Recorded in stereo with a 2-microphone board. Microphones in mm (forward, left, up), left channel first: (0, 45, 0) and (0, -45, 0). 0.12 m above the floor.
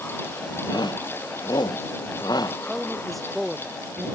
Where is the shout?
50° left (ahead or behind); by 2.6 s 45° left (ahead or behind).